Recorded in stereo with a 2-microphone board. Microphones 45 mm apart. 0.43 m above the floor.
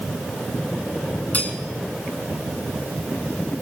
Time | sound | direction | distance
1.3 | cutlery clinking | 35° left (ahead or behind) | 3 m